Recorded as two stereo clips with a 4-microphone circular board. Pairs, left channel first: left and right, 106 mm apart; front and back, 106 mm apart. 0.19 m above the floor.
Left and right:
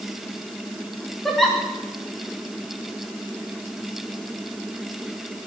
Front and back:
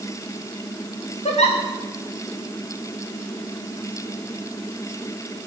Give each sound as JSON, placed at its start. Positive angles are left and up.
{"t": 1.2, "sound": "a giggle", "azimuth_deg": 0, "distance_m": 8.5}